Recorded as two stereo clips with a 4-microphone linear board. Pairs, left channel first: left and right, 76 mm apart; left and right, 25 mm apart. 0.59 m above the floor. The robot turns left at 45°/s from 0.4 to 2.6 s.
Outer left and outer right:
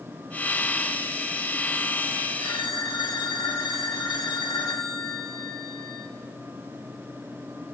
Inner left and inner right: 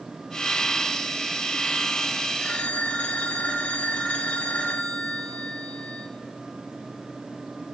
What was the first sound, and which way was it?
A phone ringing, 80° left.